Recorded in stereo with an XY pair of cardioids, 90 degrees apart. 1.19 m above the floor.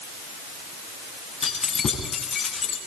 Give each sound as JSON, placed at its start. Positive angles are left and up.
{"t": 1.4, "sound": "keys jangling", "azimuth_deg": 45, "distance_m": 9.0}